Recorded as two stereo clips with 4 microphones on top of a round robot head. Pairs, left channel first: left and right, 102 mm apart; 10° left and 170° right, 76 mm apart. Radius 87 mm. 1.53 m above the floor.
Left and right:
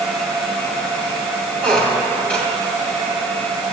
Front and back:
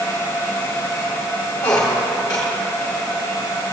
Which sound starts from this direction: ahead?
A squeak, at 1.6 s.